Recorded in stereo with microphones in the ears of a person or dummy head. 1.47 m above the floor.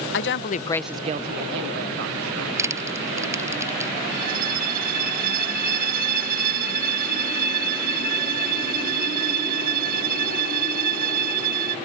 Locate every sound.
0.1 s a woman speaking: 65° left (ahead or behind); by 3.6 s 80° right
2.6 s crushing: 15° right (ahead or behind)
4.1 s a violin: 50° right (ahead or behind)